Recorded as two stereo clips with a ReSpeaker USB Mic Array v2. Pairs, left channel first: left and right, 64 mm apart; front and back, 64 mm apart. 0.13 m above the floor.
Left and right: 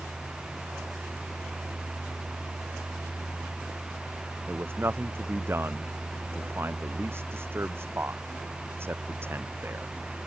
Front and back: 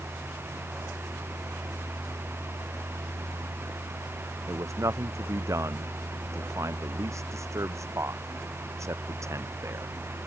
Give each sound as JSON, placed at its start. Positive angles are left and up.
{"t": 4.5, "sound": "a man speaking", "azimuth_deg": -140}